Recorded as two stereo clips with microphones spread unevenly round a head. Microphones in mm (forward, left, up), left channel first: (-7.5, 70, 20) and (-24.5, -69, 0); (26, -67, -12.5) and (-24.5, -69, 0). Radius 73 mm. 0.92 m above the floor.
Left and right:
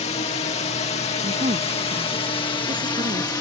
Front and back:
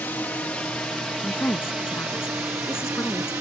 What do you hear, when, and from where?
0.0 s a drone: 50° left; by 3.4 s 145° left
1.2 s a woman speaking: 40° right